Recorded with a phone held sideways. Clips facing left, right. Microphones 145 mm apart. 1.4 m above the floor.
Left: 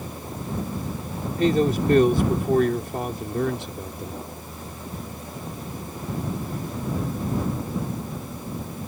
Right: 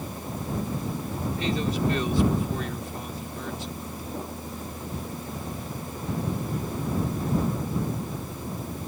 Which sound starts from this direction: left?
A man speaking, at 1.4 s.